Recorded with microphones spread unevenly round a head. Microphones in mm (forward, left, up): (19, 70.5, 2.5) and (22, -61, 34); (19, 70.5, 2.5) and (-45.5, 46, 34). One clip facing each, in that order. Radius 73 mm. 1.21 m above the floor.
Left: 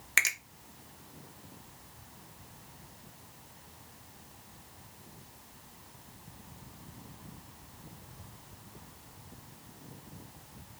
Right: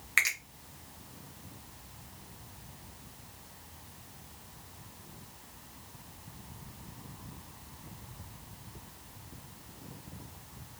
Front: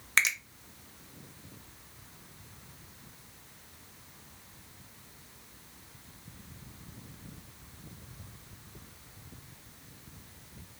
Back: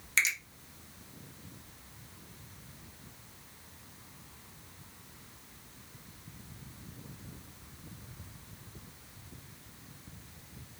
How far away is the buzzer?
I don't hear a buzzer.